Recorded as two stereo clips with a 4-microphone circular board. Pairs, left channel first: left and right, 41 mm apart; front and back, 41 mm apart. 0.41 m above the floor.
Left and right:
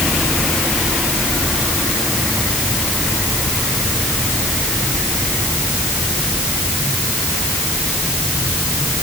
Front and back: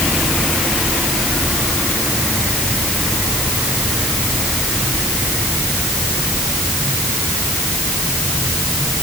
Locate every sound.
Only background noise.